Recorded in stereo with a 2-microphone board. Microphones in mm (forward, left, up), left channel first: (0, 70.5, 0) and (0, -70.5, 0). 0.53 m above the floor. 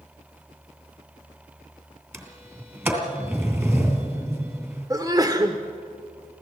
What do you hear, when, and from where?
2.1 s a sliding door: 15° right (ahead or behind), 2.5 m
4.9 s a sneeze: 25° right (ahead or behind), 1.2 m